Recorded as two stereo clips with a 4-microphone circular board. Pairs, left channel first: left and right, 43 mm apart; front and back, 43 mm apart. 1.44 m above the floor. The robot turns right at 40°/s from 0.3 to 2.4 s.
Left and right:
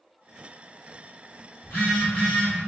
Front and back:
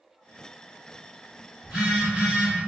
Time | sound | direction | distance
1.6 | a phone buzzing | 100° left | 1.7 m